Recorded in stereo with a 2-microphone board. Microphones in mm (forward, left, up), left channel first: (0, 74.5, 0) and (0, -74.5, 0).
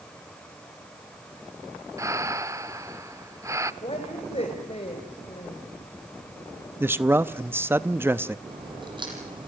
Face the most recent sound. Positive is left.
turn(degrees=-30)  # may be behind; listen again after turning